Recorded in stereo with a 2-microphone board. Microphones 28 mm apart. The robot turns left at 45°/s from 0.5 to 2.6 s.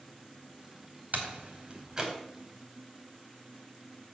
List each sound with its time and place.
1.1 s a door slam: 60° right (ahead or behind), 2.5 m; by 2.1 s 15° right (ahead or behind), 2.5 m